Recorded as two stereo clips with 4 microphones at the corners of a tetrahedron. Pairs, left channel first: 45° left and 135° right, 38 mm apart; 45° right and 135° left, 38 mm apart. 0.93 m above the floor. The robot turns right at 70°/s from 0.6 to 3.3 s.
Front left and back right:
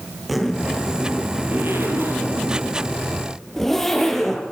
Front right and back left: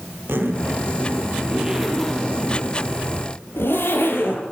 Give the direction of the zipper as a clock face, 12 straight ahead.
7 o'clock.